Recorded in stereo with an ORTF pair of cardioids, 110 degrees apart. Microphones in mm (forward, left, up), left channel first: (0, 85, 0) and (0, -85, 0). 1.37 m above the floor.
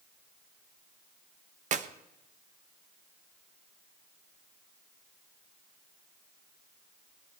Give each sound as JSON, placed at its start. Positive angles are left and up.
{"t": 1.7, "sound": "a clap", "azimuth_deg": -50, "distance_m": 1.1}